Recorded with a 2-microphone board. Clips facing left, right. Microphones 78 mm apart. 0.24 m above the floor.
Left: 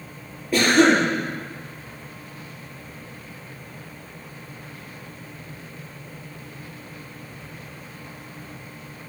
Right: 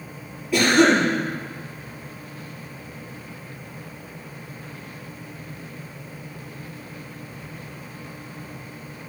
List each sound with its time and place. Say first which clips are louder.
0.5 s a cough: even; 40° left (ahead or behind), 6 m